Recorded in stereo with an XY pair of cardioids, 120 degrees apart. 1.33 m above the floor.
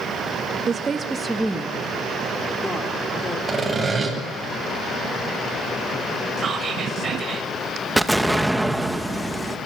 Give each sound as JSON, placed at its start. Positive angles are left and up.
{"t": 0.7, "sound": "a woman speaking", "azimuth_deg": -35, "distance_m": 1.4}
{"t": 3.5, "sound": "sawing", "azimuth_deg": -25, "distance_m": 9.0}
{"t": 6.4, "sound": "whispering", "azimuth_deg": -40, "distance_m": 6.0}
{"t": 8.0, "sound": "an explosion", "azimuth_deg": 0, "distance_m": 2.0}